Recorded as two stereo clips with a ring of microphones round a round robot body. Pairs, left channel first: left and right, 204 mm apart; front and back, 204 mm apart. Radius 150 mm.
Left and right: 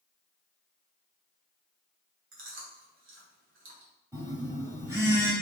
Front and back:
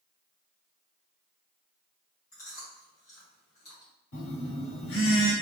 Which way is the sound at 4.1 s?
10° right.